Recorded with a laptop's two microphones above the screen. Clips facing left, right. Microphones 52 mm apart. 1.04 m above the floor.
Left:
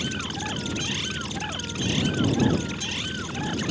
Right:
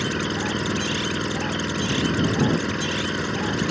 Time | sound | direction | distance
0.0 | an engine running | 75° right (ahead or behind) | ?